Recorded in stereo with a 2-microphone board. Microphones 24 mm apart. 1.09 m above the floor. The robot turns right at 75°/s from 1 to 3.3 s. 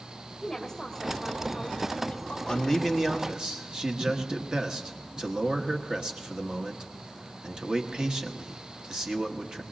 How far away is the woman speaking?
About 2.5 m.